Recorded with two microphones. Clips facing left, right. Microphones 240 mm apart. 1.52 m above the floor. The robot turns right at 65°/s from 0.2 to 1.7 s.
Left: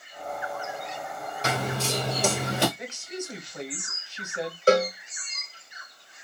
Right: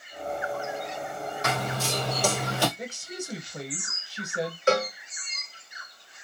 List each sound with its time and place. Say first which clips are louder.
1.4 s running footsteps: left 3 dB; 35° left (ahead or behind), 1.7 m; by 2.7 s 20° left (ahead or behind), 1.6 m
2.8 s a woman speaking: left 1 dB; 35° right (ahead or behind), 0.9 m
4.7 s a cowbell: left 5 dB; 35° left (ahead or behind), 0.8 m